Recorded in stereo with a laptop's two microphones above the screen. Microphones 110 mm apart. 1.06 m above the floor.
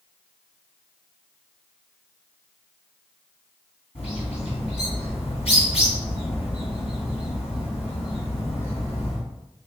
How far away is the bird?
About 2.0 m.